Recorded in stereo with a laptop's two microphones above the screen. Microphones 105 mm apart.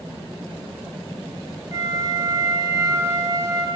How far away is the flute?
About 1.1 m.